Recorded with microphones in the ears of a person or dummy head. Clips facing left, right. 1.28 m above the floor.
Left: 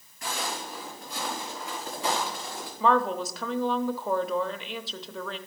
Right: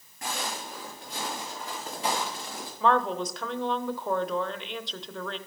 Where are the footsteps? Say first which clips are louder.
Left 1 dB; 40° right (ahead or behind), 5 m; by 2.7 s 15° right (ahead or behind), 6.5 m.